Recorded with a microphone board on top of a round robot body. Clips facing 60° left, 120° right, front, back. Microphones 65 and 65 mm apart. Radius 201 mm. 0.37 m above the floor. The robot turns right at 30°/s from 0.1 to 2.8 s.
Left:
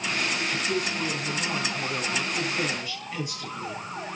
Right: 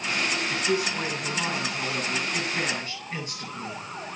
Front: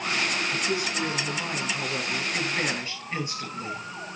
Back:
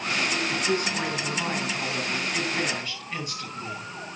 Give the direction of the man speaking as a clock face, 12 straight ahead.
4 o'clock.